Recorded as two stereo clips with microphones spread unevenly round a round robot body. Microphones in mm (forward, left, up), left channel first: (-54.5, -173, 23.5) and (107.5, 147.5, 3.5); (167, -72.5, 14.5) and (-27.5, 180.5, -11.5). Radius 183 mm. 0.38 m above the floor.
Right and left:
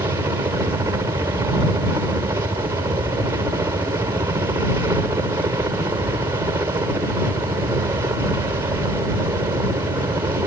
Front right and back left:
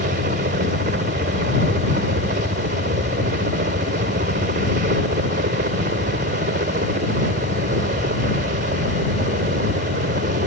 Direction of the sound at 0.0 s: 135° left.